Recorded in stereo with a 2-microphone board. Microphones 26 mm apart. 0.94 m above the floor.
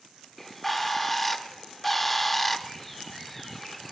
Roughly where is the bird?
Centre.